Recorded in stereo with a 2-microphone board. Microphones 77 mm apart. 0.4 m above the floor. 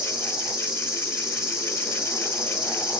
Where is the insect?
10° right (ahead or behind), 1.3 m.